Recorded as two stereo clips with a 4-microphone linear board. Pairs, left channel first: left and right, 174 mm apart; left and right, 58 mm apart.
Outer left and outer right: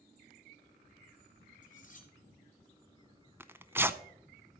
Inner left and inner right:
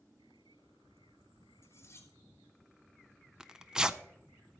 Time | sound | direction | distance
1.6 | cutlery clinking | 55° left (ahead or behind) | 2 m
3.4 | tearing paper | 15° right (ahead or behind) | 0.5 m